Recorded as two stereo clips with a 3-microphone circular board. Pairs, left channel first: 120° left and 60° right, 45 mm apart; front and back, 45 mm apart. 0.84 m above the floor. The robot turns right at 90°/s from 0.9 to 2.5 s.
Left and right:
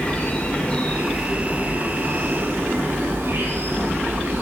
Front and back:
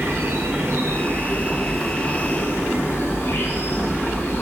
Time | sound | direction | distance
0.0 | an insect | 175° right | 3 m